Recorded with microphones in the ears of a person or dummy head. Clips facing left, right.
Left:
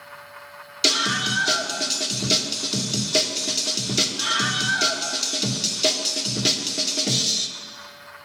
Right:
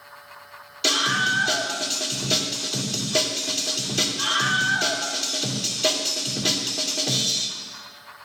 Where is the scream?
35° left (ahead or behind), 2.5 m.